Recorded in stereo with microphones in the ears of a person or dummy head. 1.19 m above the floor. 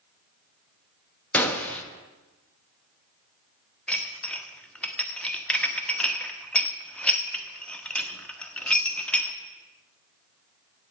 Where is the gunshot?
5° left (ahead or behind), 0.8 m.